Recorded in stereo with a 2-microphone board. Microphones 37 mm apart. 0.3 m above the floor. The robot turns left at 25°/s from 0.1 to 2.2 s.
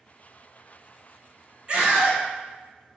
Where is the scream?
30° right (ahead or behind), 1.0 m.